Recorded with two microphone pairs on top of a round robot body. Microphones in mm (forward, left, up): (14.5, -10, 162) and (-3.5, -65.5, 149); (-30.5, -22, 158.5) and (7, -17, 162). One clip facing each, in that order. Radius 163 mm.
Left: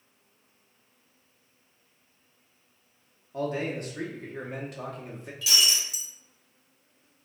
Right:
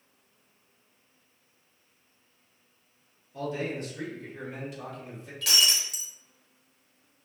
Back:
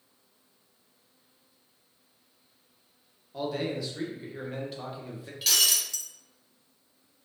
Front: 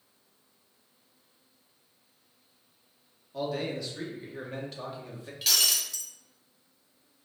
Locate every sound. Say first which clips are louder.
3.3 s a man speaking: left 2 dB, back 1 dB; 110° left, 1.3 m
5.4 s breaking glass: right 1 dB, back 1 dB; 80° right, 0.9 m